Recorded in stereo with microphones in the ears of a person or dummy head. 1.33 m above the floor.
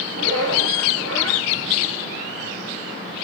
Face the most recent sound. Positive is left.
turn(degrees=-85)